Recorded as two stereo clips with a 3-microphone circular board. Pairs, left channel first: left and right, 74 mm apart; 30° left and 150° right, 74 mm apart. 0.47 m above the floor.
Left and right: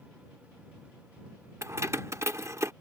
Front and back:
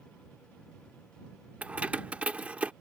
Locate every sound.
1.6 s keys jangling: 85° right